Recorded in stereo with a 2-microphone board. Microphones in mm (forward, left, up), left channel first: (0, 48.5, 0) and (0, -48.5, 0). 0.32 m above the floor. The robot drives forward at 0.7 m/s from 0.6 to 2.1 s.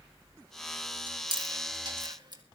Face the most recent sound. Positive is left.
turn(degrees=-45)  # may be behind; listen again after turning